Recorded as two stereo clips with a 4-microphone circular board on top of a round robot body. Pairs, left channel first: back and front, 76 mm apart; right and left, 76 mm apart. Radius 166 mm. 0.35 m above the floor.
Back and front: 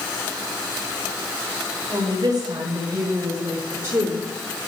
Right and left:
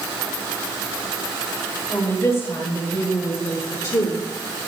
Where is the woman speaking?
40° right, 2.5 m; by 4.2 s 60° right, 1.5 m.